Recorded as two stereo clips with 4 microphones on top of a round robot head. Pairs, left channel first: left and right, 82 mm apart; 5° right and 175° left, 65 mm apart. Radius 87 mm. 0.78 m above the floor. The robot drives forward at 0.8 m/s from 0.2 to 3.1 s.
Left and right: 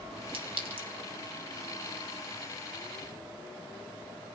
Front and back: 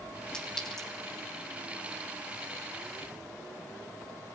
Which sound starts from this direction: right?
A clink, at 0.3 s.